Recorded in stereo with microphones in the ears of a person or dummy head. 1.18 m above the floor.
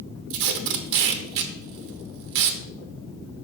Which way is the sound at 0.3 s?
60° right (ahead or behind).